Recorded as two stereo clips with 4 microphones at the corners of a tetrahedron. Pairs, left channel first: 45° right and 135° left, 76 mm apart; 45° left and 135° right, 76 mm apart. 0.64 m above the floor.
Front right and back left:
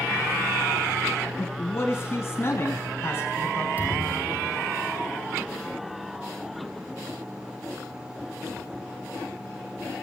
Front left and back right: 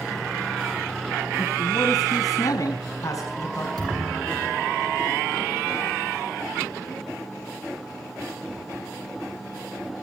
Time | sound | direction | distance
1.4 | a man speaking | 10° left | 5 m
3.8 | a thud | 160° right | 7.5 m